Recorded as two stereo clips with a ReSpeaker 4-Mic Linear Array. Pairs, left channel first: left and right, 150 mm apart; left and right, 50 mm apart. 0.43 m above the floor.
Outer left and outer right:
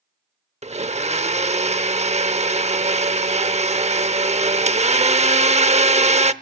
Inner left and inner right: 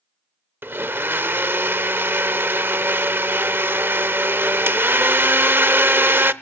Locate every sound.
0.6 s a blender: 45° right (ahead or behind), 0.7 m